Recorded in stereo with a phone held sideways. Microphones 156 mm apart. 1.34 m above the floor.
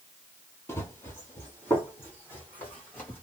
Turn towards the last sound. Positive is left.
turn(degrees=15)  # may be behind; listen again after turning